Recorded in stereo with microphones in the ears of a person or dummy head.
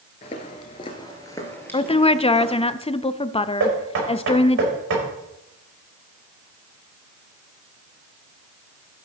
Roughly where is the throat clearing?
I don't hear throat clearing.